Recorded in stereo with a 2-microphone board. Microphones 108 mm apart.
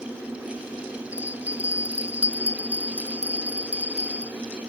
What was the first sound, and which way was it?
A bell, 75° right (ahead or behind).